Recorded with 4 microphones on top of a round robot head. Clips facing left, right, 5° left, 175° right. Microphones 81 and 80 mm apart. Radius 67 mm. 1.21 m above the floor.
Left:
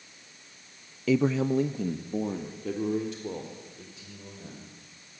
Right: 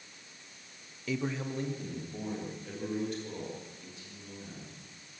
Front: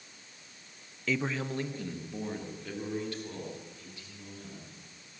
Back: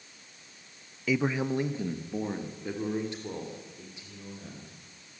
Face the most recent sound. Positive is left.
turn(degrees=115)